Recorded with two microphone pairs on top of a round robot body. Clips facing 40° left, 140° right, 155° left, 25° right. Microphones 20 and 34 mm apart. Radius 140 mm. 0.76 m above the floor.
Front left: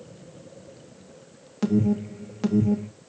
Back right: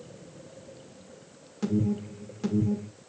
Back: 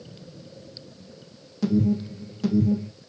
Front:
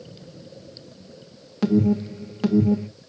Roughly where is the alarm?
Ahead.